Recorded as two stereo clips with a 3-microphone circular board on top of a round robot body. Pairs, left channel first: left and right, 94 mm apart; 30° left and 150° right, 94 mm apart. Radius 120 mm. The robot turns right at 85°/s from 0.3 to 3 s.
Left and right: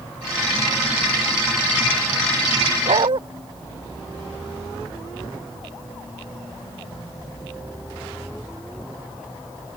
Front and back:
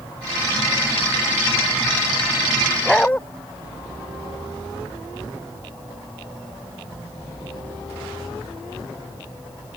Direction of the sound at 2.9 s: 60° right.